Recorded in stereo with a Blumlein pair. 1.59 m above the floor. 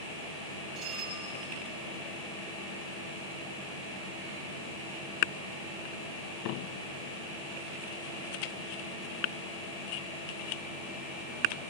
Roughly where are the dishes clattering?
Ahead right.